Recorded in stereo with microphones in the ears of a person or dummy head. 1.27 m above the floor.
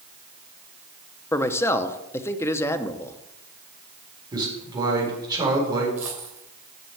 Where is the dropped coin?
5° right (ahead or behind), 3 m.